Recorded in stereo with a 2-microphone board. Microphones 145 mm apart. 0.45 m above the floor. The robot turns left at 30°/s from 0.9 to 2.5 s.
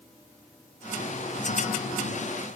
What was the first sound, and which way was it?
Only background noise.